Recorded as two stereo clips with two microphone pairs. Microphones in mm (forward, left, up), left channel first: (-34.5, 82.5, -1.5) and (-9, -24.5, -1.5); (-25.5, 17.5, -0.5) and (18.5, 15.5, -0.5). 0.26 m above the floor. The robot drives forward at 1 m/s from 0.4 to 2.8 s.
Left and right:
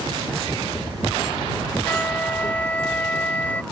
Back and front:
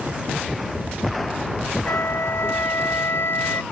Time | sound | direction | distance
1.8 | a flute | straight behind | ?